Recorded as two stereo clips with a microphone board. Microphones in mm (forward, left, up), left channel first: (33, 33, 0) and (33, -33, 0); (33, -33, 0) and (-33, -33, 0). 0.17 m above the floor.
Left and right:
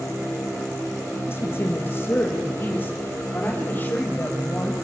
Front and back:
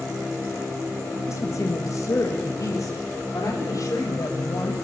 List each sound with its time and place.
1.3 s a woman speaking: 40° left, 4.5 m; by 4.8 s 30° left, 6 m